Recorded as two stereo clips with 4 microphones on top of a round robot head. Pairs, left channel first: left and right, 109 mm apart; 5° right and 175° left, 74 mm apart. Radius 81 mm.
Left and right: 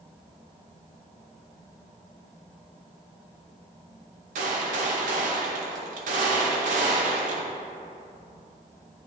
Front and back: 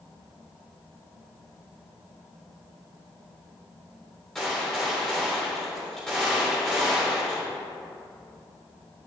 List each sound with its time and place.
4.3 s a gunshot: 95° right, 0.8 m